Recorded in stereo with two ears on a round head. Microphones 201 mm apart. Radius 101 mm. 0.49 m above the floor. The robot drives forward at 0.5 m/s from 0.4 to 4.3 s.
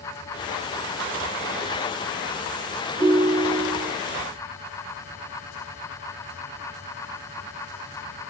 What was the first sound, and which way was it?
A ringtone, 25° right (ahead or behind).